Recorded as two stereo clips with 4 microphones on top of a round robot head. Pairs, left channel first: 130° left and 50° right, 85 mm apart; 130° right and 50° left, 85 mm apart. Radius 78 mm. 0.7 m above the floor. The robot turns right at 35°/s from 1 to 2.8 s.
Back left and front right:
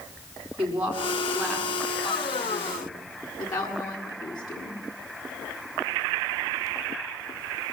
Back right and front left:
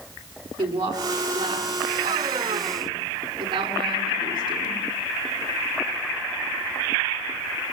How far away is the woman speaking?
About 7.5 m.